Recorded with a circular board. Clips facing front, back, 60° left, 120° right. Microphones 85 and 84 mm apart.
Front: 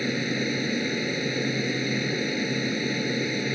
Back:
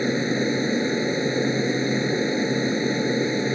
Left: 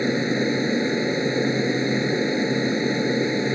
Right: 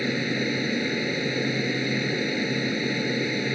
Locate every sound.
0.0 s an aircraft: 125° left